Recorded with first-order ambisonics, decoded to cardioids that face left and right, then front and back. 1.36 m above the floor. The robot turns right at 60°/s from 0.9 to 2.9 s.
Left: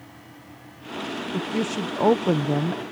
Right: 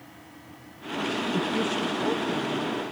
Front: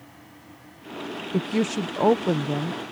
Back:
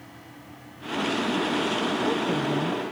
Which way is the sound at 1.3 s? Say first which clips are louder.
Left 2 dB, back 1 dB; straight ahead.